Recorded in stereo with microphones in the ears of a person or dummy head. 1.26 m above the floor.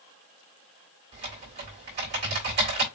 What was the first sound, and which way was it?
Typing on a keyboard, 45° right (ahead or behind).